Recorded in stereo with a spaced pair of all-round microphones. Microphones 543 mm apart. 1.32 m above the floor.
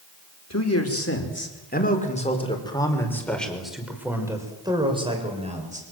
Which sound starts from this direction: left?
A man speaking, at 0.5 s.